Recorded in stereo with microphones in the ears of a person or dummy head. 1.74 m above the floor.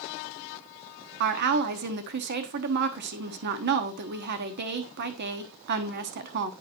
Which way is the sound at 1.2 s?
60° right (ahead or behind).